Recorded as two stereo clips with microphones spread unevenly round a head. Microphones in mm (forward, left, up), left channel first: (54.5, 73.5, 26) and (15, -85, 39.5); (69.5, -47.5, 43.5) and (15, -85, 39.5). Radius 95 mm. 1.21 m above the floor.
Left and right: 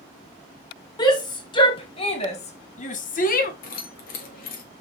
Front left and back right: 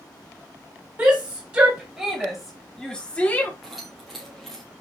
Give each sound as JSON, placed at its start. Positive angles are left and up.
{"t": 1.0, "sound": "a shout", "azimuth_deg": 145, "distance_m": 2.0}
{"t": 3.6, "sound": "keys jangling", "azimuth_deg": 125, "distance_m": 1.4}